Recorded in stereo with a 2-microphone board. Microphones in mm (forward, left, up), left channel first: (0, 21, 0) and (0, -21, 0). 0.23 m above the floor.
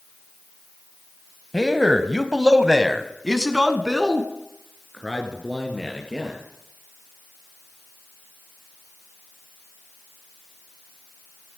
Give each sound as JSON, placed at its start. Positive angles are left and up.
{"t": 1.5, "sound": "a man speaking", "side_deg": -10, "distance_m": 1.1}